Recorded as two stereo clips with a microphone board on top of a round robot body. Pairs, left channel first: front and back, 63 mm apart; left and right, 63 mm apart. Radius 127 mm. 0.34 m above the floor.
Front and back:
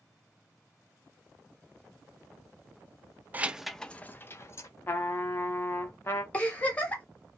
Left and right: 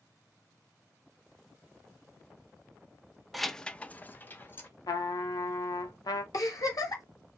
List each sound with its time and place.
3.3 s keys jangling: straight behind, 0.5 m; by 4.7 s 35° left, 0.9 m
4.9 s a trumpet: 60° left, 0.5 m
6.3 s a giggle: 70° left, 1.1 m